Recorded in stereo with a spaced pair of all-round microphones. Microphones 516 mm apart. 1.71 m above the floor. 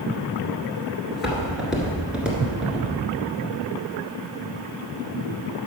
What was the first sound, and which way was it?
Footsteps, centre (ahead or behind).